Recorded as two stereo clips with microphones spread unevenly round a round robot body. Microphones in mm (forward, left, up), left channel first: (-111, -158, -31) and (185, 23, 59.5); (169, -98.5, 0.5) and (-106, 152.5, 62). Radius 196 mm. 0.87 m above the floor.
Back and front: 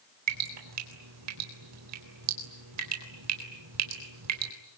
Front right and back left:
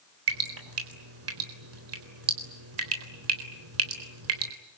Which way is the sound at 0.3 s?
85° left.